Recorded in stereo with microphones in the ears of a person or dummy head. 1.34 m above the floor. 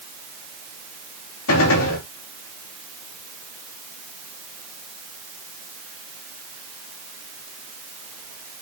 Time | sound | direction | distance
1.5 | a gunshot | 75° left (ahead or behind) | 3.5 m